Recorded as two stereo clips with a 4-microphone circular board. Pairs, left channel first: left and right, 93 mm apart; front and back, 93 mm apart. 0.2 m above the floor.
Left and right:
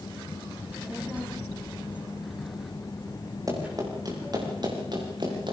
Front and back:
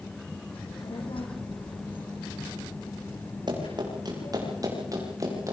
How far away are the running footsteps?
About 8 m.